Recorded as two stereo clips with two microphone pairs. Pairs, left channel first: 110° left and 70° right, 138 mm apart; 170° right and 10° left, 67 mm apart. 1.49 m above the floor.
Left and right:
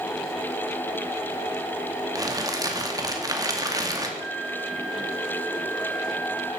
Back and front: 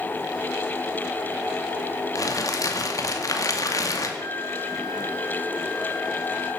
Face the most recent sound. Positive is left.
turn(degrees=-170)